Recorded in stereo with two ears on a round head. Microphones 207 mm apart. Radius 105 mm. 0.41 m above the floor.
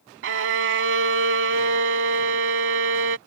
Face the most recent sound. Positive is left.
turn(degrees=-60)  # may be behind; listen again after turning